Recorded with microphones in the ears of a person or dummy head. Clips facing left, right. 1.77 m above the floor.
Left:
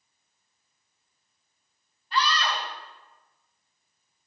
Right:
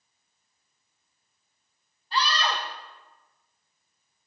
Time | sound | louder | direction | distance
2.1 | a scream | even | 25° right (ahead or behind) | 1.1 m